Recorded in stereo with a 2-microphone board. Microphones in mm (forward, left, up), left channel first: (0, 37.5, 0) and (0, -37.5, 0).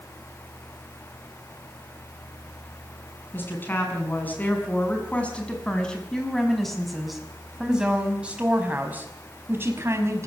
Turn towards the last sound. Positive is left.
turn(degrees=-35)  # may be behind; listen again after turning